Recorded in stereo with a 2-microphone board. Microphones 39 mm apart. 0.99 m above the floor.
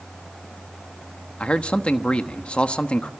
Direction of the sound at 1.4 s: 30° left (ahead or behind).